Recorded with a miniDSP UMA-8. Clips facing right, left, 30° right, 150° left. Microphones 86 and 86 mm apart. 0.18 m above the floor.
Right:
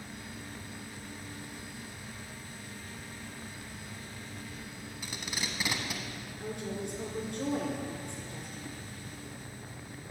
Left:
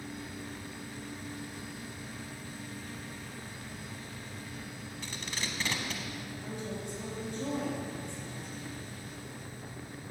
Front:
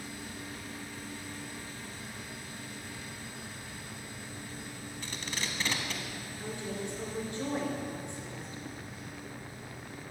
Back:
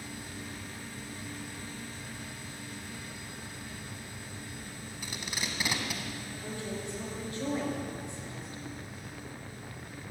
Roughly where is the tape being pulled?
Behind right.